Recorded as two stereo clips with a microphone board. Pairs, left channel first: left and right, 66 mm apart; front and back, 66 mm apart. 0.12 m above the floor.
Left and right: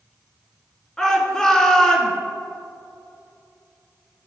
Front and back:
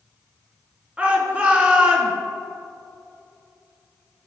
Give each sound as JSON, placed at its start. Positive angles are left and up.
{"t": 1.0, "sound": "a shout", "azimuth_deg": 155, "distance_m": 1.6}